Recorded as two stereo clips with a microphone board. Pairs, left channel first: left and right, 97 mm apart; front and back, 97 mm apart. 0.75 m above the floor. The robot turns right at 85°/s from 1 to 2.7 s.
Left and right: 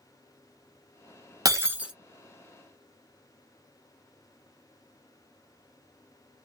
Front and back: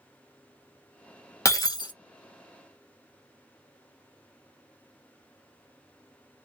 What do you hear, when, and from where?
1.4 s breaking glass: 50° right, 1.1 m; by 1.9 s 10° right, 1.1 m